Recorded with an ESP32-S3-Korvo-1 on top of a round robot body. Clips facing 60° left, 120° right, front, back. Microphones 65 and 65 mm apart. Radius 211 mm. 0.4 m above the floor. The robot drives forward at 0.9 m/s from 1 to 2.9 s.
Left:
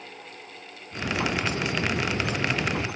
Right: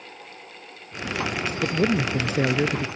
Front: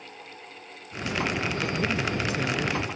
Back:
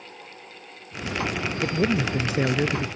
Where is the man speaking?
120° right; by 2.9 s 130° right.